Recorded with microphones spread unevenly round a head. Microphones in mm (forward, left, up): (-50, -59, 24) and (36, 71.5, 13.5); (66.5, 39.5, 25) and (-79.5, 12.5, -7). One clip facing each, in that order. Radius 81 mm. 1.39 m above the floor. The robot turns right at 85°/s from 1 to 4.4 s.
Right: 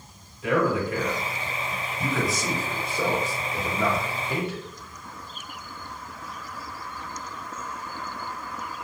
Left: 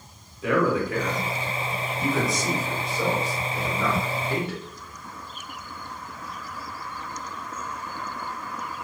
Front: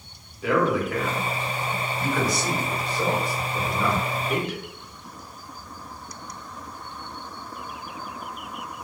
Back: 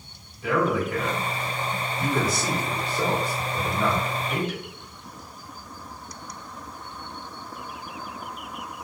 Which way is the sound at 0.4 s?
35° left.